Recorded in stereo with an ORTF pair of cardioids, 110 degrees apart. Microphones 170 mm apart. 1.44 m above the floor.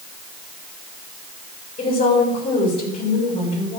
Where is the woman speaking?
35° left, 5.5 m.